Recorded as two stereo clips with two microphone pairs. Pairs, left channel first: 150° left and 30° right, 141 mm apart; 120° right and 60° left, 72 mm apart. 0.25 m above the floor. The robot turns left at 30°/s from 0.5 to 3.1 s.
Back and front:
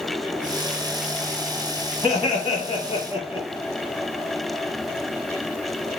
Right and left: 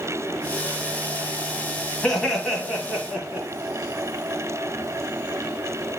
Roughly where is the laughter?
Behind.